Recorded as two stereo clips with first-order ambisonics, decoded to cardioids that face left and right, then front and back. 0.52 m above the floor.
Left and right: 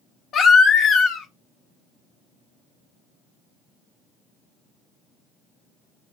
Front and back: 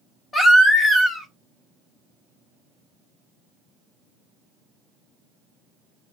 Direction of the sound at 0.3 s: 60° left.